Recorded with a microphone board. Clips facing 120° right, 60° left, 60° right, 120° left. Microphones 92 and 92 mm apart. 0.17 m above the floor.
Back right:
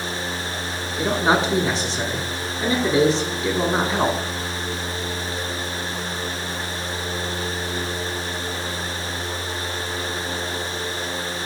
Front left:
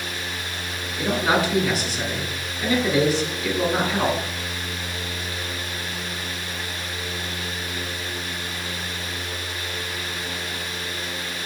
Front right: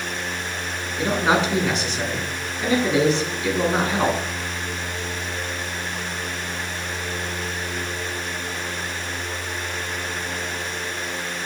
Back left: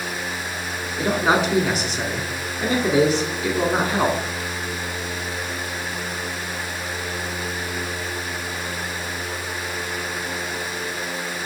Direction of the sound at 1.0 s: 160° right.